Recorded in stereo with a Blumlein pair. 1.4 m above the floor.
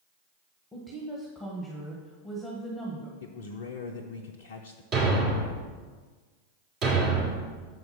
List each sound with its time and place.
0.7 s a woman speaking: 5° left, 1.2 m
3.2 s a man speaking: 55° left, 0.5 m
4.9 s a thud: 35° right, 2 m